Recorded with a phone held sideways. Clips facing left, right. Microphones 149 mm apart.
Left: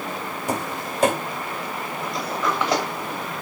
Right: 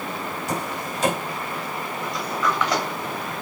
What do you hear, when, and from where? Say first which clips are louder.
0.5 s tapping: left 3 dB; 50° left (ahead or behind), 4 m
2.0 s a sliding door: even; 25° left (ahead or behind), 2.5 m